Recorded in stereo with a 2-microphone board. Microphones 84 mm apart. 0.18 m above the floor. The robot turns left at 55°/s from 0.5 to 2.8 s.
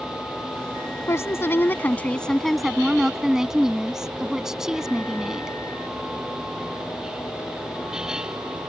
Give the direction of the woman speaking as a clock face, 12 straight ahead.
9 o'clock.